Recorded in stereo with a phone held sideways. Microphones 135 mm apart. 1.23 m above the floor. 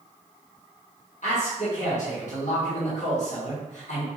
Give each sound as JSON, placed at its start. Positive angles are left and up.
{"t": 1.2, "sound": "a man speaking", "side_deg": 60, "distance_m": 1.2}